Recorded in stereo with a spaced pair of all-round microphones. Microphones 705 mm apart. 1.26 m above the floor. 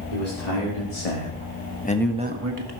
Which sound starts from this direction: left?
A man speaking, at 0.1 s.